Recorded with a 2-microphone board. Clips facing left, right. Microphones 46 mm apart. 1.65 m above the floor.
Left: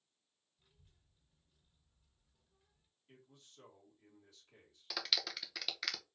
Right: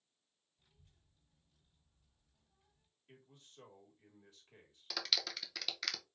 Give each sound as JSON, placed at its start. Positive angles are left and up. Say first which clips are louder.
{"t": 0.6, "sound": "a child speaking", "louder": "right 1 dB", "side_deg": 5, "distance_m": 1.7}
{"t": 3.1, "sound": "a man speaking", "louder": "right 1 dB", "side_deg": -30, "distance_m": 2.0}
{"t": 4.9, "sound": "a clap", "louder": "even", "side_deg": 5, "distance_m": 0.6}